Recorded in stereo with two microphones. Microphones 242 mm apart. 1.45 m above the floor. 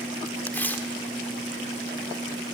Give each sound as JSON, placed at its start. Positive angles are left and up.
{"t": 0.5, "sound": "tearing paper", "side_deg": 5, "distance_m": 1.5}